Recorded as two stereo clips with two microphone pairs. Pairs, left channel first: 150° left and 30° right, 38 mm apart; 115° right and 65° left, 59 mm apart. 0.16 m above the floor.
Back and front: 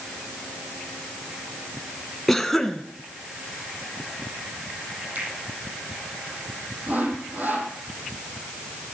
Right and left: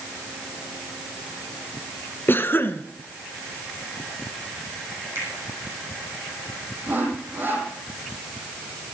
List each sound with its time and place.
2.3 s a cough: 125° right, 1.9 m
5.2 s a finger snap: 15° left, 6 m
6.9 s sawing: 5° left, 5 m